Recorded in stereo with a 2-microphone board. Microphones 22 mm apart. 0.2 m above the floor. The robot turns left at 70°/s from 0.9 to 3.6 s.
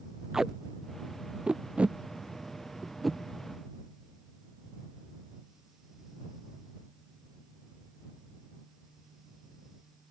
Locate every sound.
0.3 s tape being pulled: 35° right (ahead or behind); by 3.2 s 15° left (ahead or behind)